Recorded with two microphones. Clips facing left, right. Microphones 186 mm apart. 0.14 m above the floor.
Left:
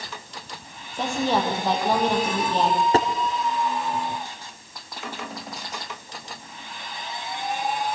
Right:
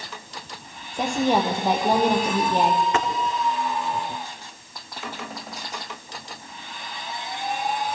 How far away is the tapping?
About 1.9 m.